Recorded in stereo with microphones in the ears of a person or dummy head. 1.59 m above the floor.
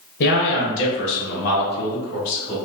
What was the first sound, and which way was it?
A man speaking, 55° left (ahead or behind).